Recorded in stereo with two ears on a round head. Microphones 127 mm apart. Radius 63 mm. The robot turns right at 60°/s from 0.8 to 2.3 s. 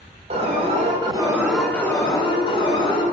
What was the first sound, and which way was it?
An alarm, 45° right.